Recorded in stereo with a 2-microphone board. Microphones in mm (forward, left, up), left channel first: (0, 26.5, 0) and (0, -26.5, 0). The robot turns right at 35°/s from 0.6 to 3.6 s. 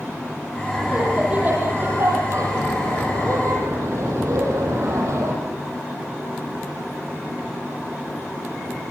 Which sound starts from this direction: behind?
Laughter, at 0.7 s.